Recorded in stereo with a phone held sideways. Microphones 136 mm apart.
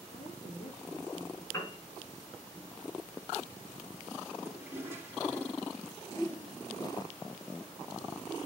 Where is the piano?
25° left (ahead or behind), 4.5 m.